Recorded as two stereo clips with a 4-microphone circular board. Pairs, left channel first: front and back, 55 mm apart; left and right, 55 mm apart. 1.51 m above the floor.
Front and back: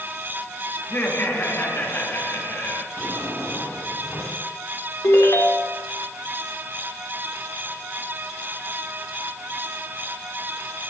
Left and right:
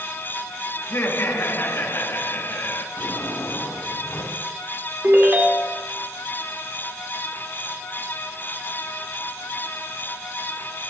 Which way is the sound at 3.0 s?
50° left.